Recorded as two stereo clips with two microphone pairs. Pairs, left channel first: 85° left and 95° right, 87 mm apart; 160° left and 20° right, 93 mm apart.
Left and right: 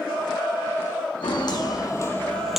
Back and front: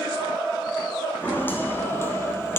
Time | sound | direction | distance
1.2 | footsteps | 95° left | 1.0 m